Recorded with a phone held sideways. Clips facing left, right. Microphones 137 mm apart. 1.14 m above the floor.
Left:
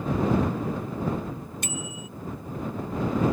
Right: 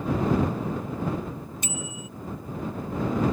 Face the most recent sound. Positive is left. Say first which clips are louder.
# even
turn(degrees=65)  # may be behind; listen again after turning